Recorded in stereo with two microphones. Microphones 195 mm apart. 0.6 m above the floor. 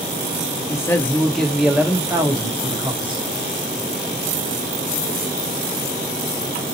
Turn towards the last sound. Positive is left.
turn(degrees=-25)  # may be behind; listen again after turning